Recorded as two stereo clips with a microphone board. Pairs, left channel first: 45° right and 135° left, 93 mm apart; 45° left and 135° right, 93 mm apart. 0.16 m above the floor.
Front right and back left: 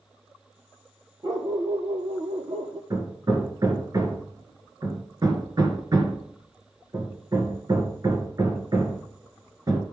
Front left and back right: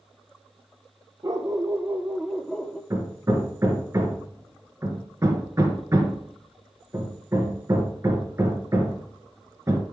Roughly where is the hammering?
Behind.